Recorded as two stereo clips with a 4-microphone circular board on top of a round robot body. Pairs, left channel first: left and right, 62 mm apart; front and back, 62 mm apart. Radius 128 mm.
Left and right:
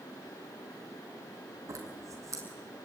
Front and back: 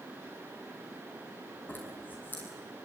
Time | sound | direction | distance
1.7 | a zipper | 60° right | 5.5 m